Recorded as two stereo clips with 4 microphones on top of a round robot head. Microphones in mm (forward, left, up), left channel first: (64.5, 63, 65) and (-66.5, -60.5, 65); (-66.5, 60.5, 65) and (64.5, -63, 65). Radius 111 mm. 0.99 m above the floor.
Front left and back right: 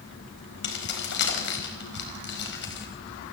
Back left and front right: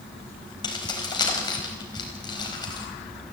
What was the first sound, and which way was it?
Keys jangling, 70° left.